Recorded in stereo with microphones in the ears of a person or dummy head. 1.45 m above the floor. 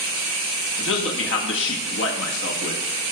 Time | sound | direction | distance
0.8 | a man speaking | 75° left (ahead or behind) | 1.3 m